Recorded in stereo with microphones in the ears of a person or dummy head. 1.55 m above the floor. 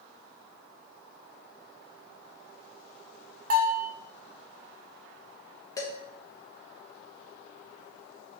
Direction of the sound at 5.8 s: 25° left (ahead or behind).